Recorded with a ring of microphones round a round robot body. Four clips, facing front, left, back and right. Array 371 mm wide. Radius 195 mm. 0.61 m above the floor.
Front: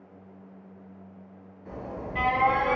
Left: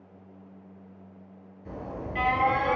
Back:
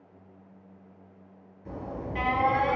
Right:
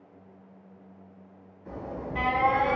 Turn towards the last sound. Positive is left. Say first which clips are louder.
# right 1 dB, even
turn(degrees=135)